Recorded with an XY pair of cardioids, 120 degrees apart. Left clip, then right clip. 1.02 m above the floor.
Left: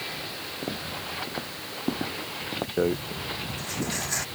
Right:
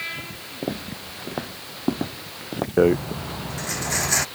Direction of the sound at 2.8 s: 40° right.